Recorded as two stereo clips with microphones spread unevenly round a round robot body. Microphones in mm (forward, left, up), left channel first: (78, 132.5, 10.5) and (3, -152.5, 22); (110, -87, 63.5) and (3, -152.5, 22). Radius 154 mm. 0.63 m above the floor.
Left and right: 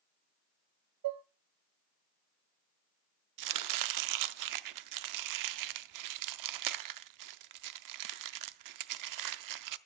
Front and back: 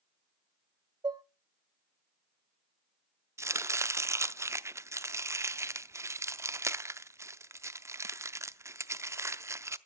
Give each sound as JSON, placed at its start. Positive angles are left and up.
{"t": 1.0, "sound": "dishes clattering", "azimuth_deg": -105, "distance_m": 0.6}
{"t": 3.4, "sound": "chopping", "azimuth_deg": -80, "distance_m": 0.6}